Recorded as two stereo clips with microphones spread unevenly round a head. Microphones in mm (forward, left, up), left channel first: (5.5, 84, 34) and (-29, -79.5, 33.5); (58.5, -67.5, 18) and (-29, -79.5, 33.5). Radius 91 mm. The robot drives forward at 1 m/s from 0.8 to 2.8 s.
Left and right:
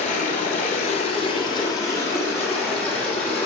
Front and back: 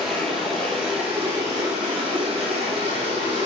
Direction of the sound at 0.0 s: 105° left.